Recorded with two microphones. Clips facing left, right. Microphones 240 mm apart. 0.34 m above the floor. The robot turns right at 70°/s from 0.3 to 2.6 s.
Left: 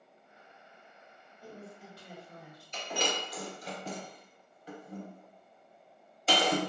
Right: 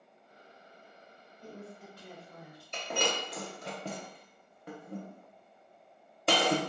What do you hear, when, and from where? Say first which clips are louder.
1.4 s a woman speaking: right 1 dB; 5° left (ahead or behind), 0.9 m; by 2.6 s 25° left (ahead or behind), 0.9 m
2.7 s breaking glass: right 1 dB; 60° right (ahead or behind), 0.6 m